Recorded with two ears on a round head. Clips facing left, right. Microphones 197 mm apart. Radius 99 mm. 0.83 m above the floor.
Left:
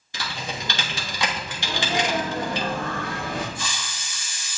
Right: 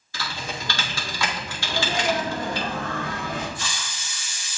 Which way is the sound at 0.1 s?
15° left (ahead or behind).